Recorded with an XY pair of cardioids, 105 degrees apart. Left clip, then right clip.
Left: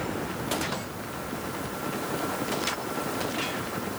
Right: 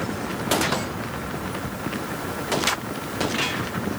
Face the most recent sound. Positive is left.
No sound to turn to.